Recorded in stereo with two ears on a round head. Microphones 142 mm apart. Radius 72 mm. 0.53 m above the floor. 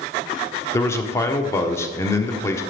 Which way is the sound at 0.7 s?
20° left (ahead or behind).